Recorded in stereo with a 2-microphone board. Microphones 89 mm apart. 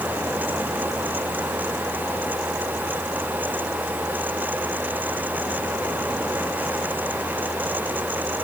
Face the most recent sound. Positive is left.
No sound to turn to.